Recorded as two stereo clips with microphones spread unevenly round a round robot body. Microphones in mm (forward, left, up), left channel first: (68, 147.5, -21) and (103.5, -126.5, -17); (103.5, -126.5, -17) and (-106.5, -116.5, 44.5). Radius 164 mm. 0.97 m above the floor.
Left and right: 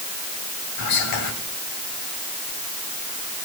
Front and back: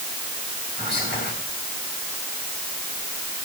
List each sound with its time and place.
0.8 s whispering: 95° left, 3 m